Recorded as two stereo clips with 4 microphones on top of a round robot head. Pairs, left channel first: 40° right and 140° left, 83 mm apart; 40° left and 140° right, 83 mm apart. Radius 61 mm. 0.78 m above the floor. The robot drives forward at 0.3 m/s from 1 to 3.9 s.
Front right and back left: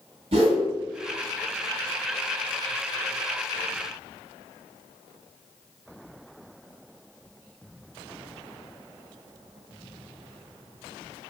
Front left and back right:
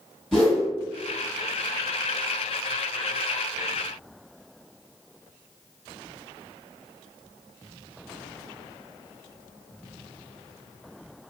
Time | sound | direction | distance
0.3 | a whoosh | 125° left | 1.5 m